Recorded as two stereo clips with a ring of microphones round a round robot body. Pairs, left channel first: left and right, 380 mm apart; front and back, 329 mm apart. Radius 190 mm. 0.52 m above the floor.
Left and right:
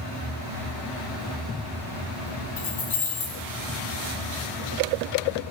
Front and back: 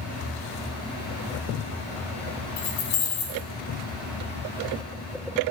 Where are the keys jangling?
20° left, 1.2 m.